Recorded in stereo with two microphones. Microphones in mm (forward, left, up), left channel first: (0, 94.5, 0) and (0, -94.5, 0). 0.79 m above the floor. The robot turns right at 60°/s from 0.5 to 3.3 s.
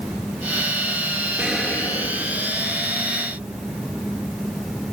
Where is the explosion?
10° right, 3 m; by 2.8 s 75° left, 3 m.